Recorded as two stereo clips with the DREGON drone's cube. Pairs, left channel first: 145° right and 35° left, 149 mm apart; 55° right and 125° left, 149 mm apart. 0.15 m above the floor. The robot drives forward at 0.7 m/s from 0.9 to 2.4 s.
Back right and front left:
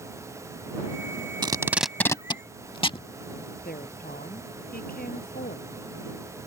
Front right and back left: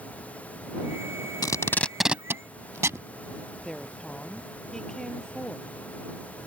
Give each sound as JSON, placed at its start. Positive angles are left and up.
{"t": 1.4, "sound": "tape being pulled", "azimuth_deg": -5}
{"t": 3.6, "sound": "a woman speaking", "azimuth_deg": -140}